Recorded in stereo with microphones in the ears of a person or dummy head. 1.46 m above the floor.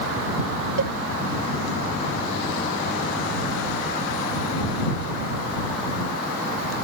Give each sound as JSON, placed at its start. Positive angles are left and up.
{"t": 0.8, "sound": "a cowbell", "side_deg": -65}